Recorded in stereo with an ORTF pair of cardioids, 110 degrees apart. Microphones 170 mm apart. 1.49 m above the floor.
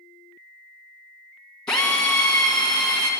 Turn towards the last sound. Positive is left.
turn(degrees=5)